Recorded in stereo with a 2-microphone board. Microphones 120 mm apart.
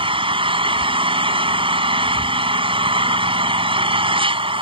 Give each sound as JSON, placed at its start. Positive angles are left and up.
{"t": 0.0, "sound": "an engine running", "side_deg": -50}